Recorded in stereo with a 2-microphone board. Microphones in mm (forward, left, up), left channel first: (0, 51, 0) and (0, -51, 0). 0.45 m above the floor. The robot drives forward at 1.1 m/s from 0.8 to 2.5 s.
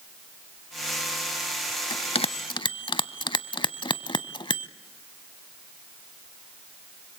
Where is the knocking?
No knocking in this recording.